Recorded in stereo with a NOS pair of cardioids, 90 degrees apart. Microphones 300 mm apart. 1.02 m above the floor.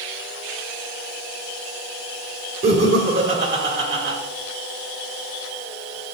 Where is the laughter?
40° right, 3.5 m.